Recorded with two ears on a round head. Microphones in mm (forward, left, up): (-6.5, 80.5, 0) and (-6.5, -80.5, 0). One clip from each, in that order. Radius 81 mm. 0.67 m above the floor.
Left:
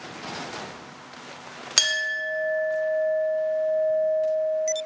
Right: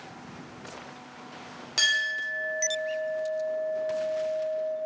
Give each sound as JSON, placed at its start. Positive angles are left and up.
{"t": 1.8, "sound": "a clink", "side_deg": 50, "distance_m": 0.7}